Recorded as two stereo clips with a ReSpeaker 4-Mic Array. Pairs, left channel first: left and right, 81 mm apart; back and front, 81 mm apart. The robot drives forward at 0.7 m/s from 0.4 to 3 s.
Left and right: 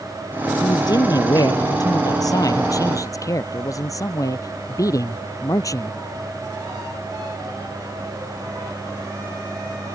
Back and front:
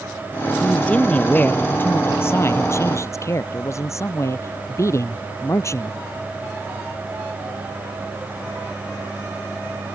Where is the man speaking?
105° left; by 6.0 s 130° left.